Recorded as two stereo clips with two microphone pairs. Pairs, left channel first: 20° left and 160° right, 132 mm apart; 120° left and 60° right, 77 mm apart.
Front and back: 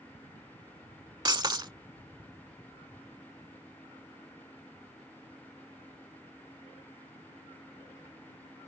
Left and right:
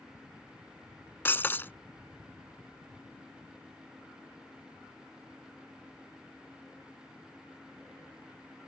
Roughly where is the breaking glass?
Behind.